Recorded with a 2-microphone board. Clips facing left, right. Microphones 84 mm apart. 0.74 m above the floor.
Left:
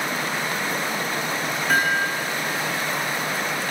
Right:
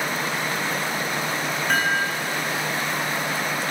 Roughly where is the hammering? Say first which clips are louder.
Left 2 dB; centre.